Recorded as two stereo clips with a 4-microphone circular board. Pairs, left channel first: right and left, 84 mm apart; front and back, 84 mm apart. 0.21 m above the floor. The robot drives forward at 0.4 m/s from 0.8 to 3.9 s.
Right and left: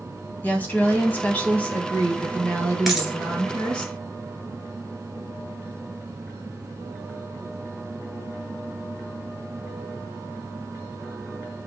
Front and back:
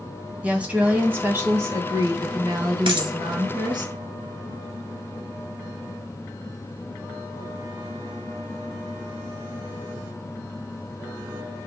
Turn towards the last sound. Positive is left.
turn(degrees=175)